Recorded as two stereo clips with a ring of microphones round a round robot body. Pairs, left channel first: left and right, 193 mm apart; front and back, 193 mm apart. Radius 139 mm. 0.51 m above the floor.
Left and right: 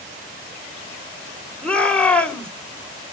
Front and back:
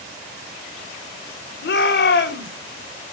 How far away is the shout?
About 2.5 m.